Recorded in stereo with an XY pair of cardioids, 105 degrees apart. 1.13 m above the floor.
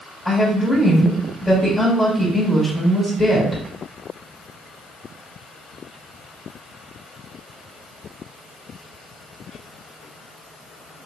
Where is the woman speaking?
25° left, 1.6 m.